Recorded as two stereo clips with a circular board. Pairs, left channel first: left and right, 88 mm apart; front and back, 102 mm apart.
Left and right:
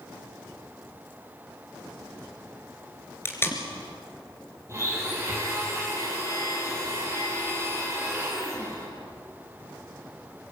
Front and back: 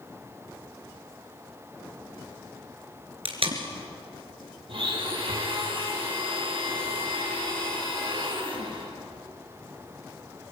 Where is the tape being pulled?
155° left, 2.5 m.